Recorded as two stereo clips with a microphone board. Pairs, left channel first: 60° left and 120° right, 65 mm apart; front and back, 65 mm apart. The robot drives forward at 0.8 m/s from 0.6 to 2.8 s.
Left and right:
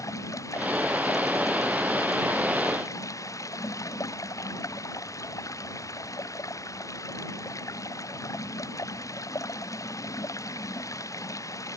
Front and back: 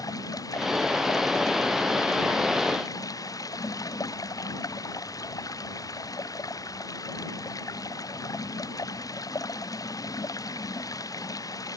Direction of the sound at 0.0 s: 25° left.